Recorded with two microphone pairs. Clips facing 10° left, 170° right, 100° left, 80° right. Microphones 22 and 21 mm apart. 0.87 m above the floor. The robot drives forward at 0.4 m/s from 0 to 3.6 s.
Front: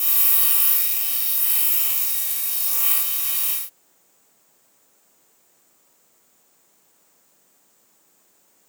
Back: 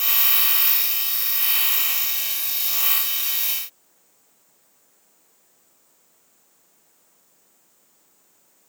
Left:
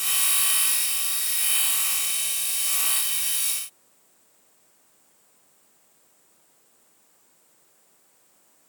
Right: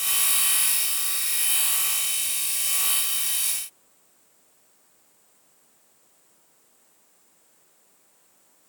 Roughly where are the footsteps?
I don't hear footsteps.